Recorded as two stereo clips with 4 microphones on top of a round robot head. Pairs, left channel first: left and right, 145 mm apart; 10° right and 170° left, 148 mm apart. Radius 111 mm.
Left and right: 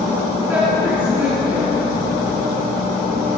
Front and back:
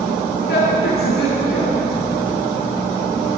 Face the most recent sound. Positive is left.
turn(degrees=-25)